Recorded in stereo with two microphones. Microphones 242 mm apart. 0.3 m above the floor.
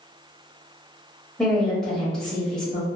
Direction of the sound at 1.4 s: 5° left (ahead or behind).